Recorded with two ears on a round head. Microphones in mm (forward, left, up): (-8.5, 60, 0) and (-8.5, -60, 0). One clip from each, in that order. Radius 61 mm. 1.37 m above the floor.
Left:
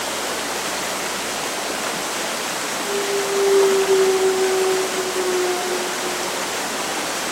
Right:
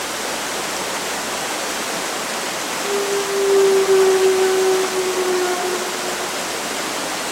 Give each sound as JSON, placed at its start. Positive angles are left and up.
{"t": 2.8, "sound": "a clunk", "side_deg": -75, "distance_m": 0.8}